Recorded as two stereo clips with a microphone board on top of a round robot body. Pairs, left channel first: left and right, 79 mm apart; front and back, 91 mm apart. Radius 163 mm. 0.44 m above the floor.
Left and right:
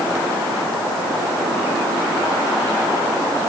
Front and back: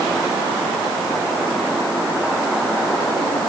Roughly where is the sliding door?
I don't hear a sliding door.